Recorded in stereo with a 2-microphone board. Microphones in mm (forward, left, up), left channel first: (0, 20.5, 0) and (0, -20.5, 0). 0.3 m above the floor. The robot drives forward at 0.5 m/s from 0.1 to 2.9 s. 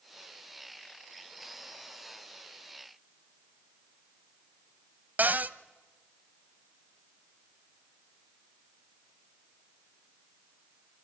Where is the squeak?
I don't hear a squeak.